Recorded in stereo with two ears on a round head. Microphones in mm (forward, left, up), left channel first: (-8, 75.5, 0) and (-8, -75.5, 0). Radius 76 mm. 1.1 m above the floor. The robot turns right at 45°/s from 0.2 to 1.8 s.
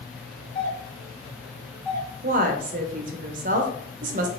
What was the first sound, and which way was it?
A doorbell, 35° left (ahead or behind).